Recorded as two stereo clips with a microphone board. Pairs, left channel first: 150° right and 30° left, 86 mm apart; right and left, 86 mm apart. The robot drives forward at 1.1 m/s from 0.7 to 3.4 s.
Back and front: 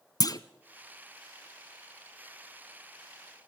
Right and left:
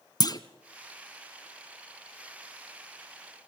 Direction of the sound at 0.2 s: 115° right.